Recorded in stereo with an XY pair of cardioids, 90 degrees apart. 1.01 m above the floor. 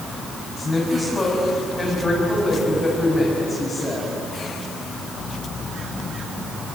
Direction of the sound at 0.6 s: 15° left.